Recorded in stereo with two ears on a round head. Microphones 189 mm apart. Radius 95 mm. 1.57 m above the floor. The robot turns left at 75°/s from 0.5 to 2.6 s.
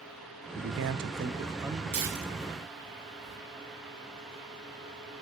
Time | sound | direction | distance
0.6 | a man speaking | 80° right | 0.5 m
1.9 | tearing paper | 65° right (ahead or behind) | 3 m